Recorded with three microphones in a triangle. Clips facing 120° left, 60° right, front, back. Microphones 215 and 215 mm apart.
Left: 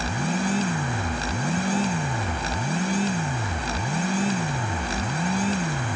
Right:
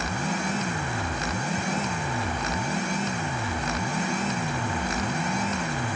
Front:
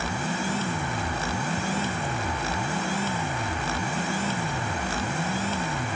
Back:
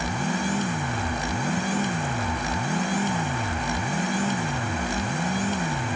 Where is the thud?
No thud in this recording.